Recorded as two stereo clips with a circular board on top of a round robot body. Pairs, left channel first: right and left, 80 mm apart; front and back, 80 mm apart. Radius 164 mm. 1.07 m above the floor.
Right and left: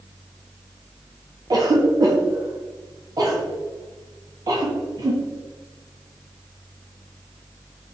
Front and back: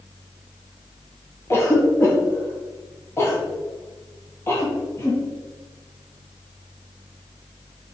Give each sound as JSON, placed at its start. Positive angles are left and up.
{"t": 1.5, "sound": "a cough", "azimuth_deg": 55, "distance_m": 1.0}